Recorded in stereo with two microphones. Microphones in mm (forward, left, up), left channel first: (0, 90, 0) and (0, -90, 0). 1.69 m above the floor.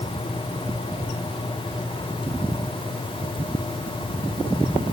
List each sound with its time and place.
Only background noise.